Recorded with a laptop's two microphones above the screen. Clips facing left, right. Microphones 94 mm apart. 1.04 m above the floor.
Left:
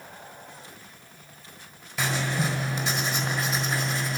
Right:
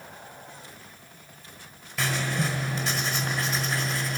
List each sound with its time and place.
2.0 s writing: centre (ahead or behind), 1.5 m